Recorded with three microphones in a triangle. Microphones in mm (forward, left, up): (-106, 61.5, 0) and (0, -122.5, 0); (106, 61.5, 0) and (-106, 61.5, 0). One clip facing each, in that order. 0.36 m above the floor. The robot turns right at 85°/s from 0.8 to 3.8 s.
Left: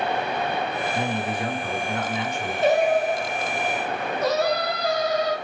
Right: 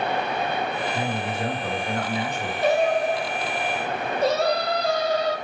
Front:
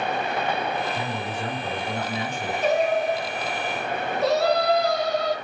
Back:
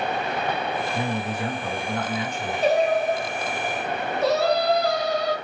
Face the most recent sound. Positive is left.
turn(degrees=-90)